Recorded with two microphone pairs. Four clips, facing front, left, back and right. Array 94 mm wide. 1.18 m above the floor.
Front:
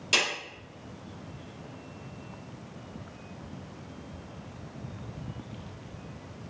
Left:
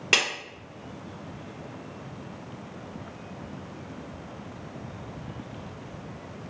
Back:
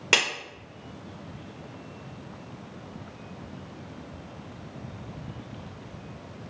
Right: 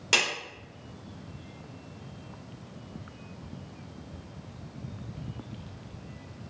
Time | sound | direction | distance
0.1 | a clap | 160° left | 2.0 m